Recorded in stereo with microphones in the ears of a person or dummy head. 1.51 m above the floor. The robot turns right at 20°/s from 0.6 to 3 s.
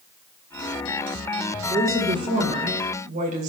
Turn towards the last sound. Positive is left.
turn(degrees=-45)  # may be behind; listen again after turning